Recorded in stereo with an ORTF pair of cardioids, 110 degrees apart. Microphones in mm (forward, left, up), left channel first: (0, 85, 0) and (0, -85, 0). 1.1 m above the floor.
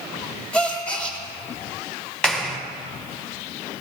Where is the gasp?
5° left, 1.9 m.